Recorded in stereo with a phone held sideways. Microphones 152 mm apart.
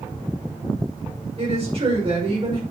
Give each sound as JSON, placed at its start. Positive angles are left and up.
{"t": 1.4, "sound": "a woman speaking", "side_deg": -40, "distance_m": 6.0}